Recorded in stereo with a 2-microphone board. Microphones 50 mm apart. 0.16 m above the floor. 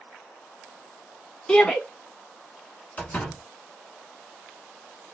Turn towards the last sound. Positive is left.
turn(degrees=30)  # may be behind; listen again after turning